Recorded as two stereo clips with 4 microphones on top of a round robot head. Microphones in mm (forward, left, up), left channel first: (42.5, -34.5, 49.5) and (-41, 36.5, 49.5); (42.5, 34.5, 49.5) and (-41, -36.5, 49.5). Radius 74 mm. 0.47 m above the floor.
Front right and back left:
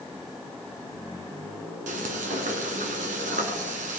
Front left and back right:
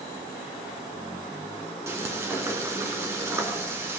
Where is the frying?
150° left, 1.7 m.